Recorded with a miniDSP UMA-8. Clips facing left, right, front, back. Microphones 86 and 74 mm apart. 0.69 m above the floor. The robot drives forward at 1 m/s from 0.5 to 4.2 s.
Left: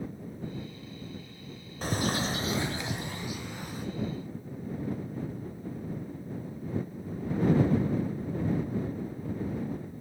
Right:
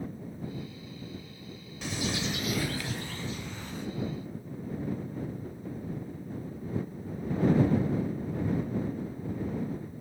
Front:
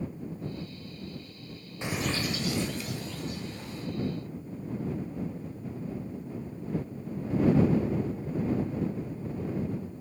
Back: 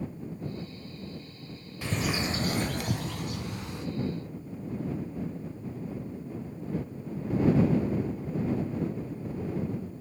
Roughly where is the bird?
Ahead left.